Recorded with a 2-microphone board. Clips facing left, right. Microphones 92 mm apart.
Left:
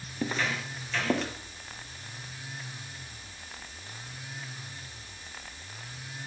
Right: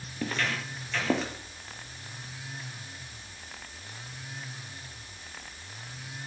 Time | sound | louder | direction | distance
0.2 | footsteps | left 1 dB | 15° left (ahead or behind) | 1.7 m